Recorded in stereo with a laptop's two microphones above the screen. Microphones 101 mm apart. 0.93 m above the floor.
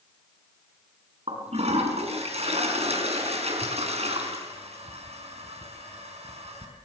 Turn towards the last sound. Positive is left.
turn(degrees=-80)